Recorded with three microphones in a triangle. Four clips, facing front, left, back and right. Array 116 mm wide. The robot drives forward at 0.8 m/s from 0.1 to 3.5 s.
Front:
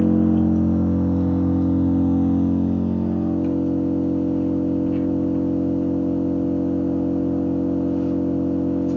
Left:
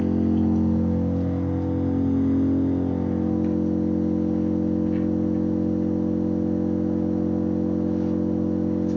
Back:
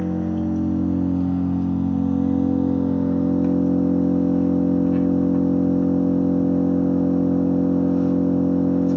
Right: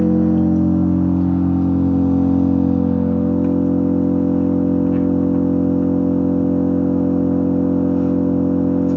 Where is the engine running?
50° right, 2.5 m; by 9.0 s 115° right, 2.5 m.